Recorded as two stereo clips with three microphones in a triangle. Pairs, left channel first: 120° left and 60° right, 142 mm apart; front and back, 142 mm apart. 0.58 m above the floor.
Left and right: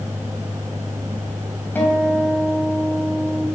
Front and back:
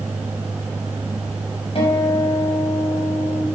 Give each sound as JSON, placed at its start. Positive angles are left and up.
{"t": 1.8, "sound": "a guitar", "azimuth_deg": 45, "distance_m": 4.0}